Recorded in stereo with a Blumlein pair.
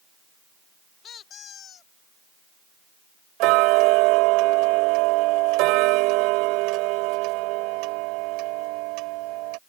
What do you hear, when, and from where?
1.0 s a squeak: 25° left
3.4 s ticking: 40° right